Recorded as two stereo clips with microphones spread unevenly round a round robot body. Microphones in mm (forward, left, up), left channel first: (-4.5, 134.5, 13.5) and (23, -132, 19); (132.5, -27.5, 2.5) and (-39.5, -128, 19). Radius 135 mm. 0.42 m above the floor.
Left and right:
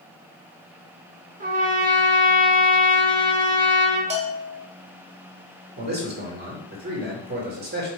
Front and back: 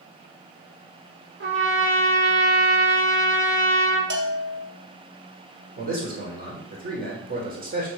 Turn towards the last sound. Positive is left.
turn(degrees=-125)